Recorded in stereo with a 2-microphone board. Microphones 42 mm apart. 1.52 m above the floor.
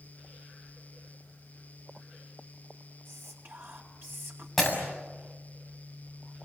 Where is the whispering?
60° right (ahead or behind), 4 m.